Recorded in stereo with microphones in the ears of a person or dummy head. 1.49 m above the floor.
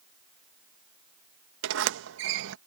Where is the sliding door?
75° right (ahead or behind).